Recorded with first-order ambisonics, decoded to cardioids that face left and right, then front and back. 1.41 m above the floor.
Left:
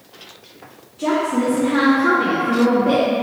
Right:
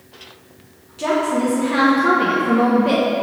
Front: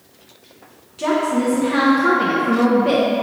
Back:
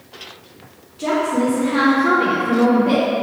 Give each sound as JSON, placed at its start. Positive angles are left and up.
{"t": 1.0, "sound": "a woman speaking", "azimuth_deg": -40, "distance_m": 1.3}